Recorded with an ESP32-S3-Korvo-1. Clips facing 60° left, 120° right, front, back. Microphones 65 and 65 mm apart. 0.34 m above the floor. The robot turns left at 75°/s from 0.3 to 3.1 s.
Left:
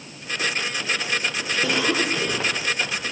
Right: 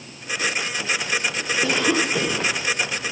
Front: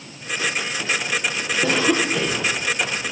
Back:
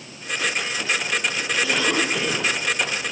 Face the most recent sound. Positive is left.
turn(degrees=-165)